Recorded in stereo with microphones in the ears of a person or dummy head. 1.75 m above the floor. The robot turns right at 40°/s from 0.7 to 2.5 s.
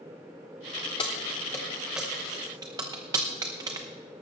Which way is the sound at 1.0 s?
20° left (ahead or behind).